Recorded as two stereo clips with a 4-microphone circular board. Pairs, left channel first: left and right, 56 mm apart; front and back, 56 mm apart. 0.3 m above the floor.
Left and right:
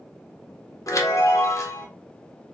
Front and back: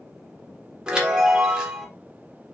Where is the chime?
105° left, 1.0 m.